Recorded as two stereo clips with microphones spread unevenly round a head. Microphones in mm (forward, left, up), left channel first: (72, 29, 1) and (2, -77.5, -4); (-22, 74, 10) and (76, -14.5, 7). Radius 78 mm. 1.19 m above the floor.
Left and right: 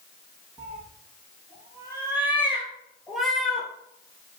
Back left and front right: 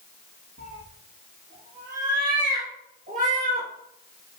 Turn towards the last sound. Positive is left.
turn(degrees=-25)